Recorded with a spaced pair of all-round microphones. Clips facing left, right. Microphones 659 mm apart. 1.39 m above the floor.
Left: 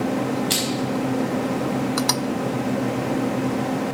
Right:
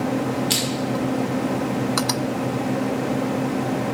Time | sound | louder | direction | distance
0.5 | crushing | even | 20° right (ahead or behind) | 1.1 m